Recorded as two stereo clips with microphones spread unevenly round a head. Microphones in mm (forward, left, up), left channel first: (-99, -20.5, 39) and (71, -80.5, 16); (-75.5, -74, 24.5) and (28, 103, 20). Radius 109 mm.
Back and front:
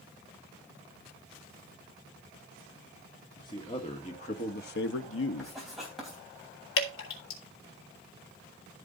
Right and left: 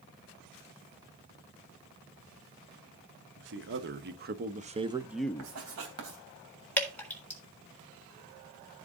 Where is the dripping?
155° left, 3.5 m.